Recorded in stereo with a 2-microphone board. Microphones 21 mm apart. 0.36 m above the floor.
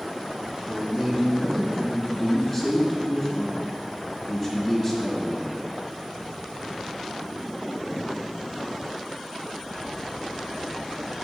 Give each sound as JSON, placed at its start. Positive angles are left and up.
{"t": 0.7, "sound": "a man speaking", "side_deg": -10, "distance_m": 2.0}